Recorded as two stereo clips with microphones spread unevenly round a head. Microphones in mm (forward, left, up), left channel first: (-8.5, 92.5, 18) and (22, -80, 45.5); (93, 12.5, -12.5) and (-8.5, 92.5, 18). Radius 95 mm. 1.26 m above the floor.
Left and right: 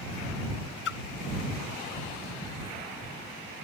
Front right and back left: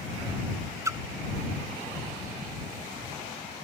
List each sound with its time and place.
0.8 s a splash: 80° left